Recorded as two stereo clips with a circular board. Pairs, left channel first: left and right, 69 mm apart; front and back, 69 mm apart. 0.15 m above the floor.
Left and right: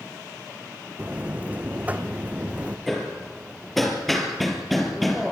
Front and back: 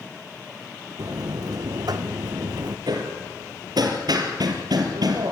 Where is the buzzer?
155° right, 1.8 m.